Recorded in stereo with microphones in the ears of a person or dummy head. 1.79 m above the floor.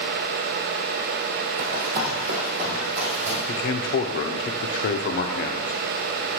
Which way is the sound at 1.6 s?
50° right (ahead or behind).